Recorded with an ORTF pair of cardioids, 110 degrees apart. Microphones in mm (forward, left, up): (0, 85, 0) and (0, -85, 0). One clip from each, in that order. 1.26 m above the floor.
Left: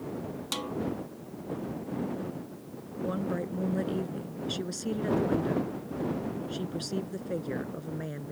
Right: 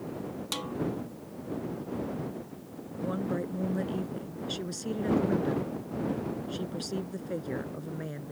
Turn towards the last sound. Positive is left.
turn(degrees=5)